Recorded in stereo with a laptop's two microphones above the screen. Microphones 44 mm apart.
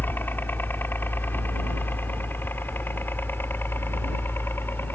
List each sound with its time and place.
0.0 s a helicopter: 50° left (ahead or behind); by 5.0 s 55° left (ahead or behind)